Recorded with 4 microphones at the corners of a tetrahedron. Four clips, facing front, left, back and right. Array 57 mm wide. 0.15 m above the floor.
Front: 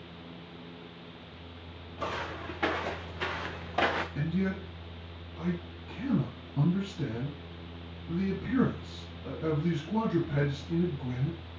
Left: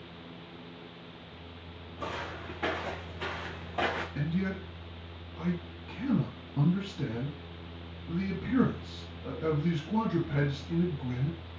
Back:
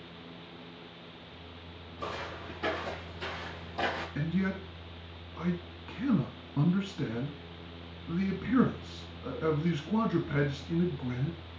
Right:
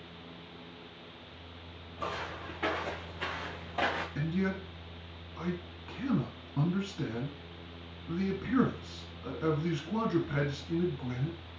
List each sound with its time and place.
2.0 s footsteps: 5° right, 3 m; by 4.0 s straight ahead, 1.3 m
4.2 s a man speaking: 150° right, 1.8 m